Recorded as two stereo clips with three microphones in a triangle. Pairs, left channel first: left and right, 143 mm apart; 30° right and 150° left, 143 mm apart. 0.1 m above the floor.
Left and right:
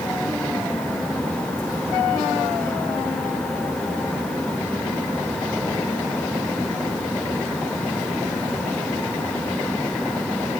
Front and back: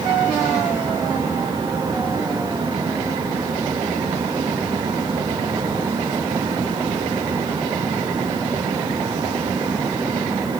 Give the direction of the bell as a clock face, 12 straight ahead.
I don't hear a bell.